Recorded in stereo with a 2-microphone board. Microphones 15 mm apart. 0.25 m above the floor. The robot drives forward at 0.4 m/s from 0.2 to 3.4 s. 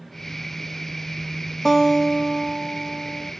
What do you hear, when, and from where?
1.6 s a guitar: 20° left (ahead or behind), 1.6 m; by 3.3 s 15° left (ahead or behind), 2.0 m